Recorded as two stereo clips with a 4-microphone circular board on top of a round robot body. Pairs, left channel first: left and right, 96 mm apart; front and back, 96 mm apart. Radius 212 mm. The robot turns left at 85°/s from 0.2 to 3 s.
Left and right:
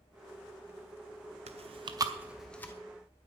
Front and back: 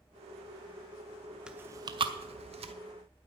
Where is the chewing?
95° right, 0.6 m; by 2.7 s 155° left, 0.6 m.